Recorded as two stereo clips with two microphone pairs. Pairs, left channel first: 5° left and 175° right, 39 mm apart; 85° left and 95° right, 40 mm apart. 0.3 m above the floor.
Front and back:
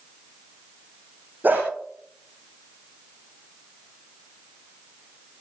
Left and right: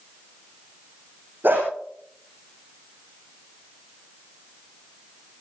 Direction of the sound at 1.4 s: 135° right.